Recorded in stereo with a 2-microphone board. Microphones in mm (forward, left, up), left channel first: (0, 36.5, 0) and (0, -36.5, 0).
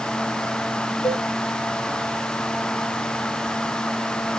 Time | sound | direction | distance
1.0 | a cowbell | 85° left | 7.5 m